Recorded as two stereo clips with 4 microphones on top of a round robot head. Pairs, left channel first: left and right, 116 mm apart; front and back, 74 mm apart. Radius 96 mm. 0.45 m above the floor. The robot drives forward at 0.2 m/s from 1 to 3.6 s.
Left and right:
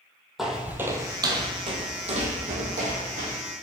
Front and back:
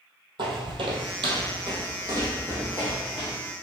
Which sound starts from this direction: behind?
Footsteps, at 0.4 s.